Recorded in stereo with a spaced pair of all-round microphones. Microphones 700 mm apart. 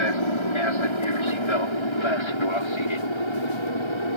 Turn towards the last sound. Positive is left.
turn(degrees=40)  # may be behind; listen again after turning